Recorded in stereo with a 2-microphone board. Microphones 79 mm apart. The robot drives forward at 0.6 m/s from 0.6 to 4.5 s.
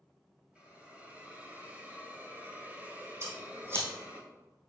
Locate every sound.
0.6 s a hiss: 15° right (ahead or behind), 1.9 m; by 4.2 s 20° right (ahead or behind), 1.7 m
3.2 s scissors: 35° right (ahead or behind), 2.5 m; by 3.9 s 30° right (ahead or behind), 2.5 m